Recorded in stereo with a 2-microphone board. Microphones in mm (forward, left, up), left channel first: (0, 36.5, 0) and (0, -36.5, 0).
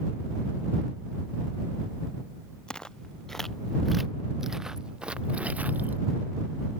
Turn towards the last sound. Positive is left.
turn(degrees=-25)  # may be behind; listen again after turning